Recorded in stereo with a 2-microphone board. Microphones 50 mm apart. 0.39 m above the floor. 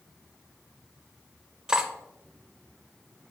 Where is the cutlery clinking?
15° right (ahead or behind), 0.8 m.